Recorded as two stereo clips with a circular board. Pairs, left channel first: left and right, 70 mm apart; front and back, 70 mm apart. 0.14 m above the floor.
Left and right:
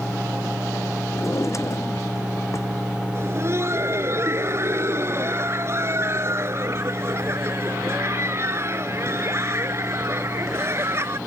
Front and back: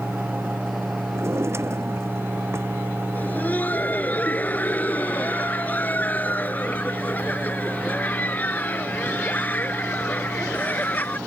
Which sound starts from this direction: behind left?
A drawer, at 1.1 s.